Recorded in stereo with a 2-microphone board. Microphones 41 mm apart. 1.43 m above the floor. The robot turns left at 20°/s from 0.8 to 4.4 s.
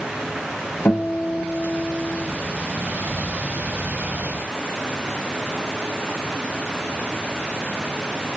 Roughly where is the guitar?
Left.